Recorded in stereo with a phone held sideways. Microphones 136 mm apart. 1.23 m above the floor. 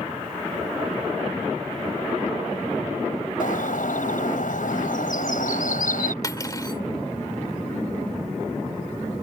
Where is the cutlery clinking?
25° left (ahead or behind).